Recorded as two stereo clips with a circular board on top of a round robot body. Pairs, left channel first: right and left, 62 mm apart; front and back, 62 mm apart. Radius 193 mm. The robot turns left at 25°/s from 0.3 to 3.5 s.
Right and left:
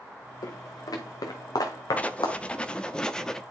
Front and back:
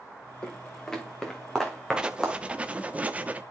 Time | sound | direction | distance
0.4 | footsteps | 70° right | 2 m
2.0 | writing | 125° right | 1.2 m